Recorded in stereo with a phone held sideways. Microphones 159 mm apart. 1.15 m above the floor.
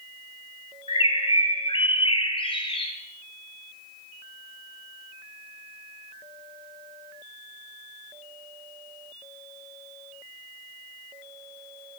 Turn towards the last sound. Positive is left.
turn(degrees=35)  # may be behind; listen again after turning